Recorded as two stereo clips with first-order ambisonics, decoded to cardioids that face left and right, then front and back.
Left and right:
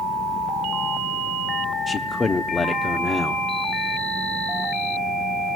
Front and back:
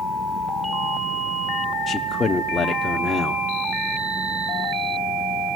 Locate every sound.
1.9 s a man speaking: 40° left, 0.7 m